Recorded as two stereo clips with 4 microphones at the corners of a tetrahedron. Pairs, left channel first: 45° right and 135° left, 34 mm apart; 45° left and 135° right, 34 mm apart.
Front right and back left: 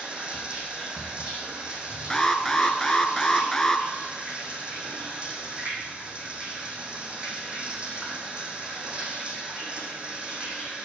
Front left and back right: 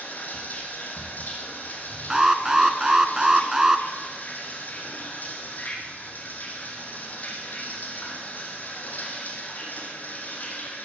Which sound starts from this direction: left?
Running water, at 0.0 s.